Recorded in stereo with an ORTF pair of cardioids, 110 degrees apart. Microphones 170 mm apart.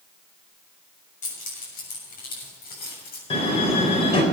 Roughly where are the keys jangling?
Ahead left.